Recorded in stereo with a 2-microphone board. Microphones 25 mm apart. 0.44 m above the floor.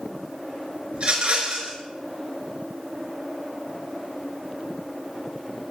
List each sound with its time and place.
0.9 s a rattle: 50° right (ahead or behind), 3.5 m